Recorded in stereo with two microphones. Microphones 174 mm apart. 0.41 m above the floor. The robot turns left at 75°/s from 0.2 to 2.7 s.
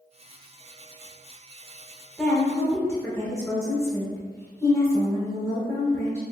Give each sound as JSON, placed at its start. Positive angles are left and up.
{"t": 2.2, "sound": "a woman speaking", "side_deg": 0, "distance_m": 0.9}